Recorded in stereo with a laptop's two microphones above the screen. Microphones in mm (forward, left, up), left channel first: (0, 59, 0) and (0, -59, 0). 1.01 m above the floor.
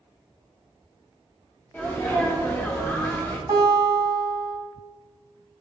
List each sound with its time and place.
1.7 s a sneeze: 15° left (ahead or behind), 0.6 m
3.5 s a guitar: 40° right (ahead or behind), 1.4 m